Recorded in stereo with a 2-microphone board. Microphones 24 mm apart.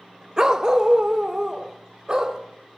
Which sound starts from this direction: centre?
A dog barking, at 0.4 s.